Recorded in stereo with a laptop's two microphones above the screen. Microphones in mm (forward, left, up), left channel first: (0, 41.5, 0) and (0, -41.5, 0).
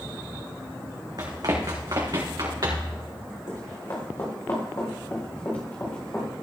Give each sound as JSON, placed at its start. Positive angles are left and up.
{"t": 1.2, "sound": "running footsteps", "side_deg": -55, "distance_m": 3.0}
{"t": 3.5, "sound": "running footsteps", "side_deg": 45, "distance_m": 3.5}